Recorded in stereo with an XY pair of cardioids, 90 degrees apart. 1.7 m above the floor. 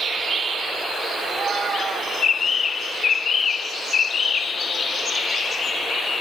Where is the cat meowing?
60° right, 3 m.